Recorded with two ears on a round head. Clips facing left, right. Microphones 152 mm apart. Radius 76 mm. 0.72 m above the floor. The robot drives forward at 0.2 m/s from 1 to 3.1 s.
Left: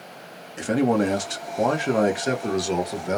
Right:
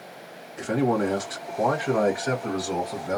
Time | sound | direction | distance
0.6 | a man speaking | 30° left (ahead or behind) | 1.1 m